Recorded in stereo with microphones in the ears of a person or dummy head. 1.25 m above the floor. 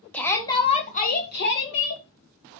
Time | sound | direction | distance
0.1 | a shout | 5° left (ahead or behind) | 1.7 m